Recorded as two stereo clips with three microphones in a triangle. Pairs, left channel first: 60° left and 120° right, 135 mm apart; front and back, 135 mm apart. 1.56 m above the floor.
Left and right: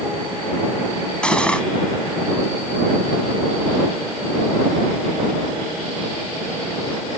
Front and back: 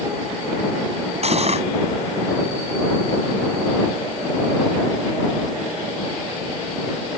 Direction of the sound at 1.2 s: 145° left.